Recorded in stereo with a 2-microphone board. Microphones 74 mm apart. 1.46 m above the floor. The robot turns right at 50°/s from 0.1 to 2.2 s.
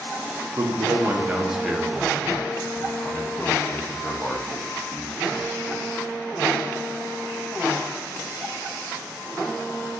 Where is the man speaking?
55° right (ahead or behind), 0.6 m; by 5.8 s 20° left (ahead or behind), 0.6 m.